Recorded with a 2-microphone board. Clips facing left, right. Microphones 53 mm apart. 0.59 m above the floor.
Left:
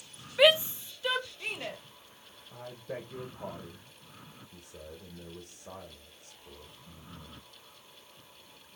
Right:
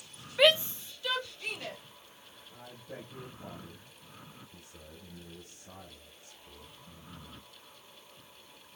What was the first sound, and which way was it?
A shout, 5° left (ahead or behind).